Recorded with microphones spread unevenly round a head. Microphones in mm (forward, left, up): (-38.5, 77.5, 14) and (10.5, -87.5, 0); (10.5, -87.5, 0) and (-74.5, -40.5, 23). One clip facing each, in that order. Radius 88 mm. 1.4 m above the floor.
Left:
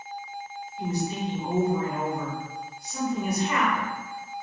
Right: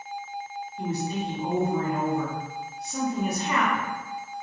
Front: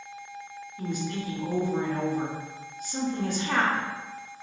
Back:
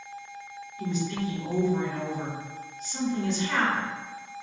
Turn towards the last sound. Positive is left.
turn(degrees=-70)